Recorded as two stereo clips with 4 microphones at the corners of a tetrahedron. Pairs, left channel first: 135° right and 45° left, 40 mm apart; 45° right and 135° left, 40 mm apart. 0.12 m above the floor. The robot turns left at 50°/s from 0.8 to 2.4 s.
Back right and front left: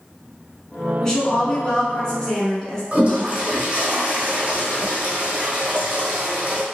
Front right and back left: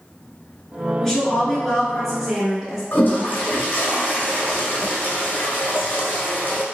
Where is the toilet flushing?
10° right, 0.9 m.